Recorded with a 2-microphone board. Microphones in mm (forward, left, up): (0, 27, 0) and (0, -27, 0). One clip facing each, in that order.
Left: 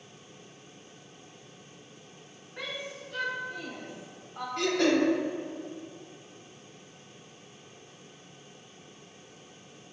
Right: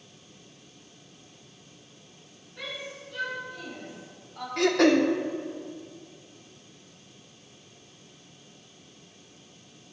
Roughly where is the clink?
No clink in this recording.